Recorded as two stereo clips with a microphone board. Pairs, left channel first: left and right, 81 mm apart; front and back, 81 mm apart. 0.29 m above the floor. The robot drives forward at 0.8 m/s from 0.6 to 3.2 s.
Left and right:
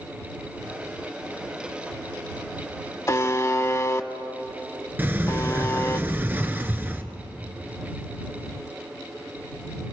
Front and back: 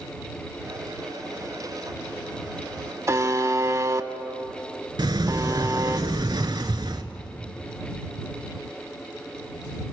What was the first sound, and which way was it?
A buzzer, 140° left.